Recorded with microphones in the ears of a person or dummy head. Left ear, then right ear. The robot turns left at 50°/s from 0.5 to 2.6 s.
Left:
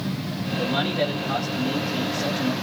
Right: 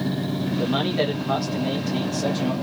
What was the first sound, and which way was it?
A man speaking, 35° right.